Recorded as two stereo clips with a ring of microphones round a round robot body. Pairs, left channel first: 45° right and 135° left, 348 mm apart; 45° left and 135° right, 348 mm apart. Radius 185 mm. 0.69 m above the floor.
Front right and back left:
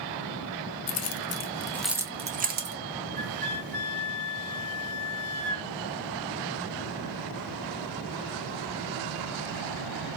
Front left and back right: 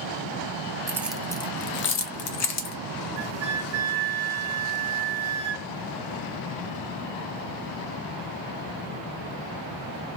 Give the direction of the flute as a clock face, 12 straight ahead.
4 o'clock.